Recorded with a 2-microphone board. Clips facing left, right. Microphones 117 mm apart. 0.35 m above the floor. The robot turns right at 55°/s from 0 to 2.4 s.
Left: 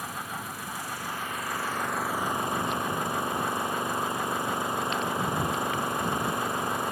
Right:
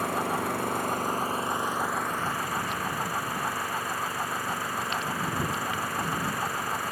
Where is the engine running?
110° right; by 6.9 s 25° left.